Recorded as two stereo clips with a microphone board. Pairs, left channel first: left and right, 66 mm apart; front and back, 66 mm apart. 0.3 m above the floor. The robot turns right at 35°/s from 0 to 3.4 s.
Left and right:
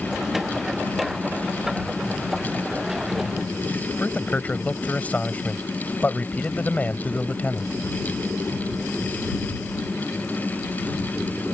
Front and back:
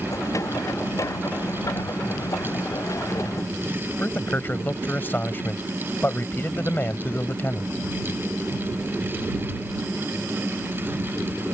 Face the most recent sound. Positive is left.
turn(degrees=40)